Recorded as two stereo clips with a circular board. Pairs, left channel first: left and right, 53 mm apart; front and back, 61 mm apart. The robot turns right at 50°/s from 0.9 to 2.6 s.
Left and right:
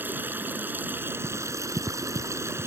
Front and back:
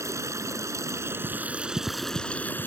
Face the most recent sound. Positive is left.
turn(degrees=-60)